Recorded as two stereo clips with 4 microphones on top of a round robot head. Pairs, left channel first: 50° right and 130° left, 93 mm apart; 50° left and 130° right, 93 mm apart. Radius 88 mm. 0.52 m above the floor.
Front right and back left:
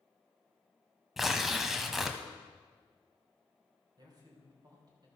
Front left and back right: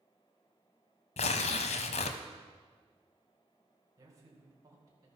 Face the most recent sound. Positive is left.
turn(degrees=175)